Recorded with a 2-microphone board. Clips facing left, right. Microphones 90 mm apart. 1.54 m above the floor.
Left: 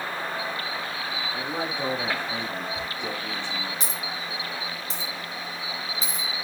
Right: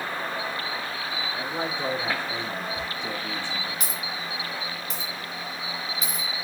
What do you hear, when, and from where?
1.3 s a man speaking: 70° left (ahead or behind), 5 m; by 3.8 s 80° left, 6.5 m
2.8 s a dropped coin: 30° left (ahead or behind), 3 m